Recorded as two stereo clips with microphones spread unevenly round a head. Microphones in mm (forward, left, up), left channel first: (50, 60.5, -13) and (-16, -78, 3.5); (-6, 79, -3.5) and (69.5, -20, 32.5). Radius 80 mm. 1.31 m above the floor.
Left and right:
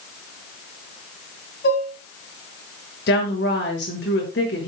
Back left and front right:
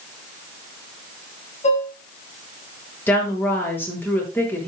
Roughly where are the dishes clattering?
Left.